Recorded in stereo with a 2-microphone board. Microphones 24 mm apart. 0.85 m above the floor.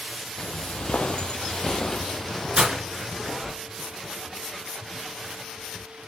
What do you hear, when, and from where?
0.4 s footsteps: 50° left (ahead or behind), 1.5 m; by 3.6 s centre (ahead or behind), 2.5 m
2.6 s breaking glass: 35° right (ahead or behind), 3.5 m